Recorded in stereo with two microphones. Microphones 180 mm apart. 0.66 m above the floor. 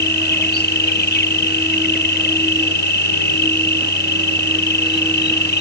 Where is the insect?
75° left (ahead or behind).